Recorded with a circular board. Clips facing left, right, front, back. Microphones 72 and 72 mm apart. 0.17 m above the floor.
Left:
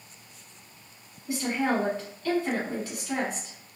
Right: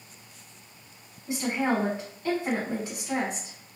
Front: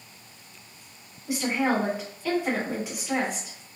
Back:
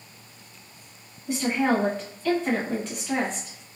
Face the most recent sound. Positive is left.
turn(degrees=-65)